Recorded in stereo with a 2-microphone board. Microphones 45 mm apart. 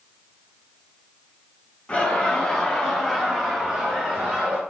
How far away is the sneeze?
I don't hear a sneeze.